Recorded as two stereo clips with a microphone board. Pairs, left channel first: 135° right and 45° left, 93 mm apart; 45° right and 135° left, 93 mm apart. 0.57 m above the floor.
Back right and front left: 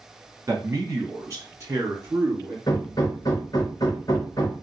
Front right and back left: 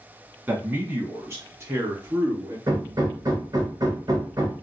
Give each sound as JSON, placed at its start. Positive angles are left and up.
{"t": 0.5, "sound": "a man speaking", "azimuth_deg": 85, "distance_m": 1.6}
{"t": 2.7, "sound": "hammering", "azimuth_deg": 180, "distance_m": 1.1}